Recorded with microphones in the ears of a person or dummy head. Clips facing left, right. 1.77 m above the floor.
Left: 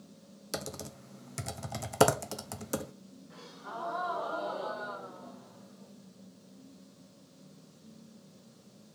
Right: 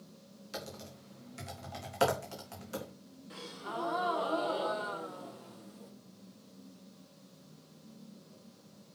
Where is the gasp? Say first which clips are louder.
Right 4 dB; 45° right (ahead or behind), 1.0 m.